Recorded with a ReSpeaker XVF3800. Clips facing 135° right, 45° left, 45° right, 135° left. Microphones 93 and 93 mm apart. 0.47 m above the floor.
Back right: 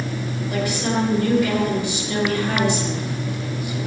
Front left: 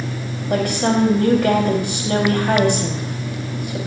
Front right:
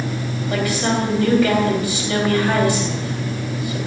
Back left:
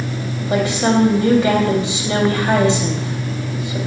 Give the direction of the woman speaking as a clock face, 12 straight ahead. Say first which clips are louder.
Front left 5 dB, back left 5 dB; 10 o'clock.